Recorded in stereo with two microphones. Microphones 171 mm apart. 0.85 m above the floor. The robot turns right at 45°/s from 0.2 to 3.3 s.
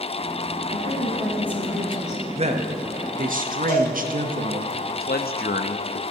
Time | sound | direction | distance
0.7 | a woman speaking | 45° right | 4 m
2.3 | a man speaking | 135° right | 0.8 m
3.7 | a cowbell | 55° left (ahead or behind) | 3.5 m
5.0 | a man speaking | 65° left (ahead or behind) | 0.6 m